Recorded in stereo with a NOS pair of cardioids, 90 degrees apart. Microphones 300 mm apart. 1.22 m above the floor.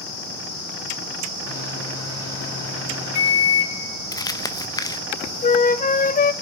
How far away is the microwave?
About 3 m.